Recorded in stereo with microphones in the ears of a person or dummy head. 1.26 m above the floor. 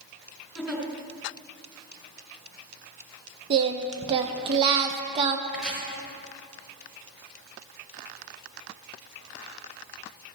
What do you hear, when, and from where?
0.6 s a giggle: 5° right (ahead or behind), 2.5 m
3.5 s singing: 30° right (ahead or behind), 0.6 m
5.5 s chopping: centre (ahead or behind), 3 m